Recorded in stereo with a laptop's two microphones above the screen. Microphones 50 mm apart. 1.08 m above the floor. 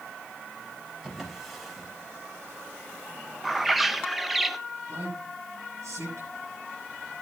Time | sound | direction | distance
1.0 | a drawer | centre (ahead or behind) | 4 m
3.4 | a bird | 5° right (ahead or behind) | 0.6 m
4.9 | a man speaking | 80° right | 9 m